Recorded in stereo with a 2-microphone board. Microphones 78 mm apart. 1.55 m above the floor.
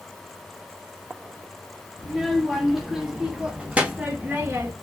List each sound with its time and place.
2.0 s a child speaking: centre (ahead or behind), 1.9 m; by 4.7 s 35° right (ahead or behind), 1.0 m